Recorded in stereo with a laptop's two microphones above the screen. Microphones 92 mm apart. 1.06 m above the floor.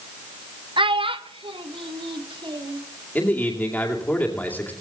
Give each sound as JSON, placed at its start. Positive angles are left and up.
{"t": 0.8, "sound": "a child speaking", "side_deg": -70, "distance_m": 0.7}
{"t": 3.1, "sound": "a man speaking", "side_deg": 20, "distance_m": 2.5}